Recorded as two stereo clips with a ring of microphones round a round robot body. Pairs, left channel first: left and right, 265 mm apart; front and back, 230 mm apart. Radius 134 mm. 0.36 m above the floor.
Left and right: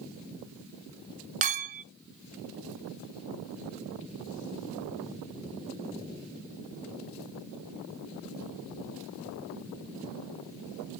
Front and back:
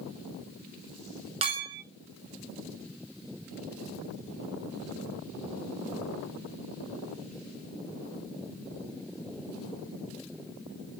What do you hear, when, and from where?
1.4 s a clink: 130° right, 0.6 m